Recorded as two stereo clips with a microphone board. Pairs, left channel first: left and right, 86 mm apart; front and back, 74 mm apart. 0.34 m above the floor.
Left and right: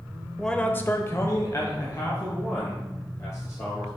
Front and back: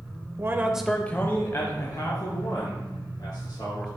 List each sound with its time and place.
0.4 s a man speaking: 175° left, 1.0 m; by 3.9 s 35° left, 4.5 m